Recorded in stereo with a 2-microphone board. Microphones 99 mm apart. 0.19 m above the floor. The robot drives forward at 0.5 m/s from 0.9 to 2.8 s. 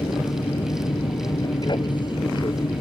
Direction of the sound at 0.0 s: 50° left (ahead or behind).